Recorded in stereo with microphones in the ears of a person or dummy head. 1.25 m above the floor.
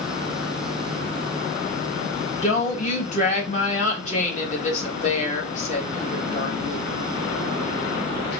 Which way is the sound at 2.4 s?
40° left (ahead or behind).